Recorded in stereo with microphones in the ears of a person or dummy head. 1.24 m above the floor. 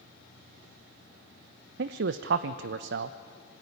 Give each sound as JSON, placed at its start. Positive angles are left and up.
{"t": 1.8, "sound": "a man speaking", "side_deg": -65, "distance_m": 0.7}